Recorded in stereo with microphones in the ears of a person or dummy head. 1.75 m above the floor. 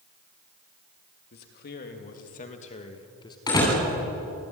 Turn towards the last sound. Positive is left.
turn(degrees=25)  # may be behind; listen again after turning